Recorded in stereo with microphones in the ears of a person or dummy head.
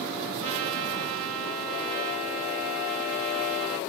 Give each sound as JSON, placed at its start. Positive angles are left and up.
{"t": 0.4, "sound": "a trumpet", "side_deg": -85, "distance_m": 1.6}